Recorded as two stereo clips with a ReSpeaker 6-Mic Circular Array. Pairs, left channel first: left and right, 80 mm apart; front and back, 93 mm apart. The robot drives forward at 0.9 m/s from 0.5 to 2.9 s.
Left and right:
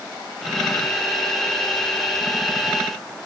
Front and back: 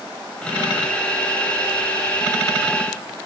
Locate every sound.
Only background noise.